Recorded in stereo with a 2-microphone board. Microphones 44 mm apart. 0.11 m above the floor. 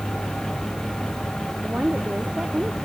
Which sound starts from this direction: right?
A woman speaking, at 1.6 s.